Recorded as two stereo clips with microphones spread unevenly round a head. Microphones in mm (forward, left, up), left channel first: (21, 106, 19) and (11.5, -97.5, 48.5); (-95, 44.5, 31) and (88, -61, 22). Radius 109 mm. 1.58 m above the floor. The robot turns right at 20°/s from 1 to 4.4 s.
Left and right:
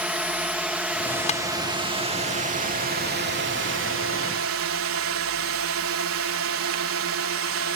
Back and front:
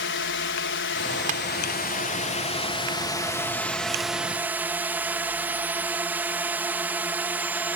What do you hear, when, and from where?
0.0 s a drone: straight behind; by 7.8 s 110° right
1.3 s tapping: 25° left; by 1.4 s 30° left